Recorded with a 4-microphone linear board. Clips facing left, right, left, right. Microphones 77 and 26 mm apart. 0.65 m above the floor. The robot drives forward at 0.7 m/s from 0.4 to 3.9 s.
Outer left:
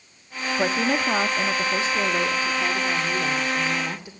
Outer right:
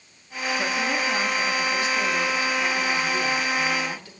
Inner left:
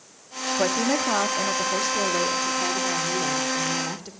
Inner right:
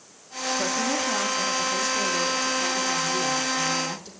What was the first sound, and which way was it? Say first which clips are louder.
A woman speaking: outer left 4 dB, inner left 4 dB; 35° left (ahead or behind).